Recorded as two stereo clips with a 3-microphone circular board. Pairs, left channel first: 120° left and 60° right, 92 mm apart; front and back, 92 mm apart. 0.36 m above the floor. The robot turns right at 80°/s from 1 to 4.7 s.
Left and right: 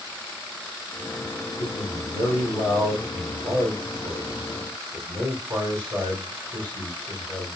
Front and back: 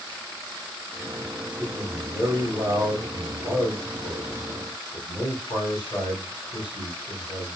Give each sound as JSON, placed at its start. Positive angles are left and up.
{"t": 1.6, "sound": "a man speaking", "azimuth_deg": 100, "distance_m": 3.0}